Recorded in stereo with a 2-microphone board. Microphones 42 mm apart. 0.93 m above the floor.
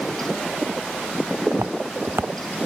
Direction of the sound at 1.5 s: 70° right (ahead or behind).